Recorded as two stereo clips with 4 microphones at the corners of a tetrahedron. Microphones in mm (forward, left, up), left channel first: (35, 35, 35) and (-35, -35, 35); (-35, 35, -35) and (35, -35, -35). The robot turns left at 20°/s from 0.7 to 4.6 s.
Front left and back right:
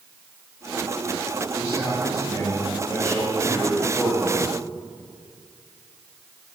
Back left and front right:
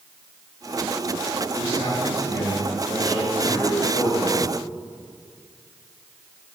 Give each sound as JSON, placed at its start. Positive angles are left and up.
{"t": 1.6, "sound": "a man speaking", "azimuth_deg": 155, "distance_m": 3.0}